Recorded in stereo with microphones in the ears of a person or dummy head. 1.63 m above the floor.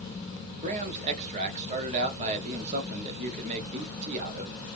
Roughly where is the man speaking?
Right.